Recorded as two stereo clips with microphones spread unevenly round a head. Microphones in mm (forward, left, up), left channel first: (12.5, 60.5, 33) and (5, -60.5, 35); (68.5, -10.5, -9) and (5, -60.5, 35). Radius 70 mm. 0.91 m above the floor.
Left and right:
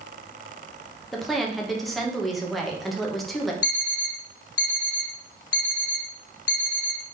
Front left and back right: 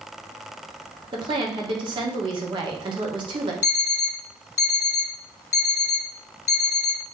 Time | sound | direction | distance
1.1 | a woman speaking | 175° left | 0.9 m
3.6 | an alarm clock | 75° left | 0.6 m